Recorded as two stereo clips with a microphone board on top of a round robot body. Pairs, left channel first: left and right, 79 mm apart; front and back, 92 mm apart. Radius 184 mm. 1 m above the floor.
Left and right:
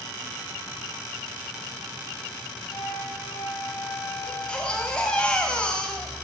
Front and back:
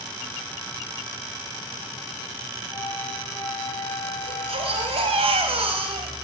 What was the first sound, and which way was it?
A flute, 45° left.